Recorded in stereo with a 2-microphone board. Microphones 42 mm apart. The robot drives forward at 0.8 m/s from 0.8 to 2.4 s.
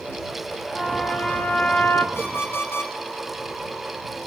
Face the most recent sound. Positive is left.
turn(degrees=65)  # may be behind; listen again after turning